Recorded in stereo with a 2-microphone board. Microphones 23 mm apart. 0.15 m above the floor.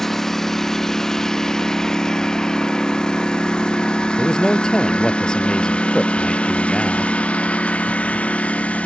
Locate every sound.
0.0 s a lawn mower: 15° left (ahead or behind); by 8.9 s 80° left
4.2 s a man speaking: 35° left (ahead or behind)